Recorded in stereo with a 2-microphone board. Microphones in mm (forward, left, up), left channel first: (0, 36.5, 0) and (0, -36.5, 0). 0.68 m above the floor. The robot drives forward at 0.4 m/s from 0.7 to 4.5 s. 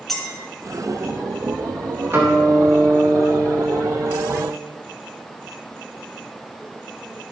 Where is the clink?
5° left (ahead or behind), 2.5 m.